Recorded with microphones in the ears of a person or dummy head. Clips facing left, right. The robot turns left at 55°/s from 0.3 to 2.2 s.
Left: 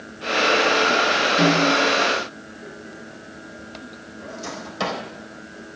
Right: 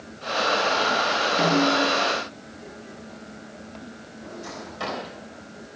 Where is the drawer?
70° left (ahead or behind), 3.5 m.